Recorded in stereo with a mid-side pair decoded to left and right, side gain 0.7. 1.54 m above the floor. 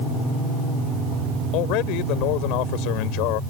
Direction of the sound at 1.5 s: 65° left.